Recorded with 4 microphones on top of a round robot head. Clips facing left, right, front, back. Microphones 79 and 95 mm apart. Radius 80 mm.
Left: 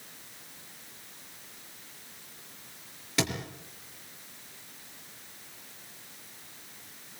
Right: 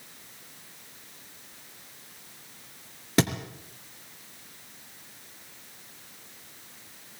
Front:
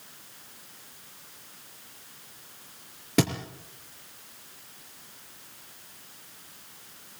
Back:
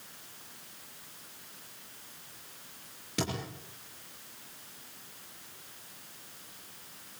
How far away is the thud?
About 4 m.